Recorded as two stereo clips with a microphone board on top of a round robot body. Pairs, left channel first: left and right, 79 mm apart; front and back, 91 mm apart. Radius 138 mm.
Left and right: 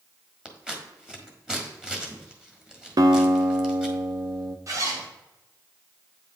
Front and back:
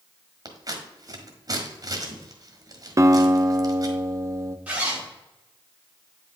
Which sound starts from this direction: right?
A zipper, at 4.7 s.